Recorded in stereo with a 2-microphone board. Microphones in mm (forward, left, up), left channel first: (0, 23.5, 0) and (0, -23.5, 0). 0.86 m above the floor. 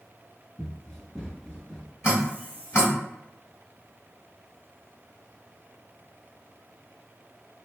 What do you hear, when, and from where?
0.6 s running footsteps: centre (ahead or behind), 0.9 m; by 1.9 s 20° left (ahead or behind), 0.9 m
2.0 s dripping: 60° left (ahead or behind), 1.7 m